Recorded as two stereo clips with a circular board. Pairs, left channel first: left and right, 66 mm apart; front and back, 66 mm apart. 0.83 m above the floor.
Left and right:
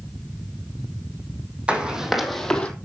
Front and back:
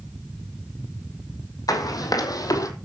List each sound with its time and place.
1.7 s running footsteps: 20° right, 2.5 m; by 2.7 s 20° left, 1.9 m